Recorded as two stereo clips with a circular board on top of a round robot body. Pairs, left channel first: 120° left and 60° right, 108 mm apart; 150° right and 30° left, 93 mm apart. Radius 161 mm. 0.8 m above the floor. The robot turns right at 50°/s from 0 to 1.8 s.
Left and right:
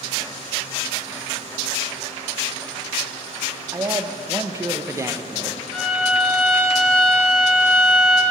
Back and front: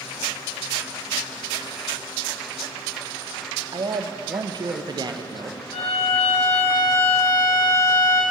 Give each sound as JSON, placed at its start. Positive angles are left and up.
{"t": 3.7, "sound": "a man speaking", "azimuth_deg": 0, "distance_m": 0.5}
{"t": 5.7, "sound": "a violin", "azimuth_deg": -155, "distance_m": 0.7}